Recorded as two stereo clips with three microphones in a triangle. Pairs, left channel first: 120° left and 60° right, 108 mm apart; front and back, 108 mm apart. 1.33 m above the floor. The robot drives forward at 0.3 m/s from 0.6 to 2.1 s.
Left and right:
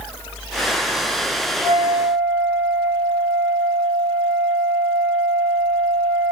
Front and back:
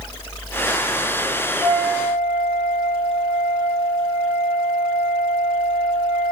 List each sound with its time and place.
1.6 s a flute: 175° right, 1.6 m